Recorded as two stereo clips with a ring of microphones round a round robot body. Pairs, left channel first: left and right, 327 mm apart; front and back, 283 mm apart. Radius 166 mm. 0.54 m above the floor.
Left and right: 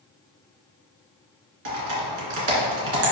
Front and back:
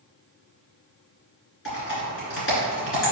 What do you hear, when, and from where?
1.6 s typing on a keyboard: 55° right, 2.0 m